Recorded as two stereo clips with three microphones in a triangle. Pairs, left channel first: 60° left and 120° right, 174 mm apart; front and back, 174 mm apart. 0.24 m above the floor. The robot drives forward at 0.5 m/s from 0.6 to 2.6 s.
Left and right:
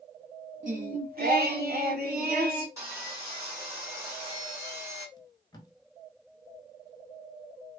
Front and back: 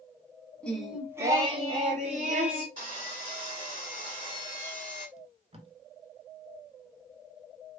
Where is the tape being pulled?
125° left, 0.7 m.